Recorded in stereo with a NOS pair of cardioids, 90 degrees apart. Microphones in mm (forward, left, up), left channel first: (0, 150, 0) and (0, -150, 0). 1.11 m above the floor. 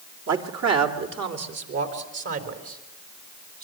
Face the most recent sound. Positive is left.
turn(degrees=-50)